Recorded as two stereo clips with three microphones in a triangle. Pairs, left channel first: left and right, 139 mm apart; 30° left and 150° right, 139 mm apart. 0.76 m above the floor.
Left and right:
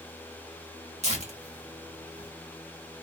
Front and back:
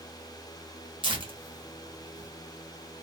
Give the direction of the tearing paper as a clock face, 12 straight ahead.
4 o'clock.